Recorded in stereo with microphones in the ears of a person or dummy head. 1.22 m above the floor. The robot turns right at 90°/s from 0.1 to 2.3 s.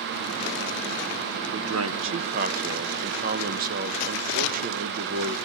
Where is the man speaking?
115° right, 1.0 m; by 5.4 s 45° right, 1.0 m.